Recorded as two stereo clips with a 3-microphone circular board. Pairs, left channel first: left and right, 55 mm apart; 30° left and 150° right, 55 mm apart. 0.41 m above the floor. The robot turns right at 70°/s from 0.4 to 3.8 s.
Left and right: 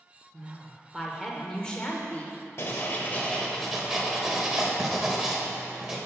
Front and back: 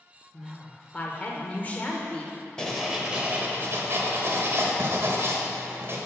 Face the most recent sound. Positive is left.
turn(degrees=-170)